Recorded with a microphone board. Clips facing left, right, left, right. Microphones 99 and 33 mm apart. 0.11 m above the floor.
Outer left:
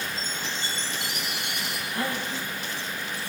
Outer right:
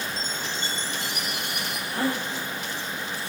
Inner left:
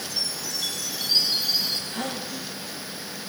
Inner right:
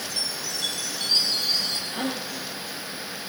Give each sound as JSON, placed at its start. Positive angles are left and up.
{"t": 0.2, "sound": "a chime", "side_deg": 10, "distance_m": 6.5}
{"t": 1.9, "sound": "a gasp", "side_deg": -35, "distance_m": 6.0}